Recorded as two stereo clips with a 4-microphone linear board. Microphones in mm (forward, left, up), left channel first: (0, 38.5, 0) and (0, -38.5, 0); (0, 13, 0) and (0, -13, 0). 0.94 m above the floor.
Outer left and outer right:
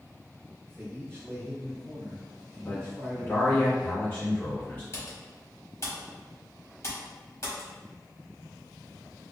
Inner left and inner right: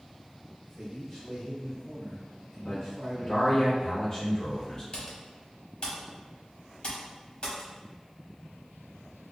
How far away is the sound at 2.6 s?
About 0.8 m.